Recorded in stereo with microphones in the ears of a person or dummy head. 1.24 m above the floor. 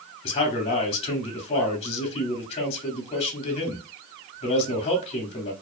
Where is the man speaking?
30° left (ahead or behind), 0.7 m.